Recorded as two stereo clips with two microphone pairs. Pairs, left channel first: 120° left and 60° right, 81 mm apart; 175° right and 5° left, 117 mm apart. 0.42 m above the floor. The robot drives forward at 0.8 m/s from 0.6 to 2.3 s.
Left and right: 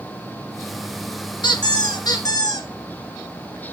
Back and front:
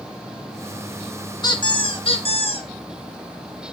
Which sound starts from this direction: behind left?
A squeak, at 1.4 s.